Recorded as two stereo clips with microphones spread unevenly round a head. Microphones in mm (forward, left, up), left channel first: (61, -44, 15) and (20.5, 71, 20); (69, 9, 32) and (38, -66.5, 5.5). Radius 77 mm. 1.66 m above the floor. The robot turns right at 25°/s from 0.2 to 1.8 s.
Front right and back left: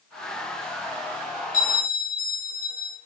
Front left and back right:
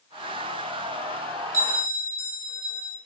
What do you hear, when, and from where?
1.5 s a bell: 55° right, 2 m; by 3.0 s 50° right, 2 m